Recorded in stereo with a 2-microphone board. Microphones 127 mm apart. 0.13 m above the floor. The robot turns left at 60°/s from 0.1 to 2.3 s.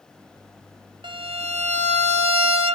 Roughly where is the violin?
Ahead right.